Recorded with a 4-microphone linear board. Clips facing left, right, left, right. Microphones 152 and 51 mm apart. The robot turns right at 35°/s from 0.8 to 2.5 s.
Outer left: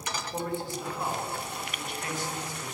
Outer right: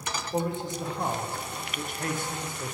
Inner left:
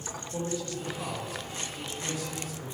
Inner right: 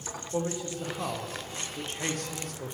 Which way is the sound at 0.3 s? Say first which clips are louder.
Outer right 4 dB, inner right 2 dB; 155° right.